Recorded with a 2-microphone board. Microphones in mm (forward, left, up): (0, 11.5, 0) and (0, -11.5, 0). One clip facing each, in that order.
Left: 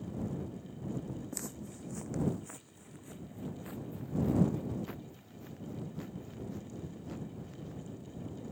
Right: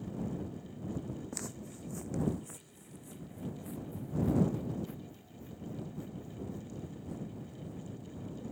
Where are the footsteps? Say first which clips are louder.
Even; 5° right (ahead or behind); by 7.8 s 45° left (ahead or behind).